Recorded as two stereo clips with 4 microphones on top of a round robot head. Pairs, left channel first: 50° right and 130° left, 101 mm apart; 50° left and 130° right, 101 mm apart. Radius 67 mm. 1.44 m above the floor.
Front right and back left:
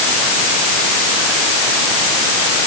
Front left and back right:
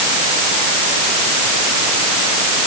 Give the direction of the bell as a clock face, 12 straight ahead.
I don't hear a bell.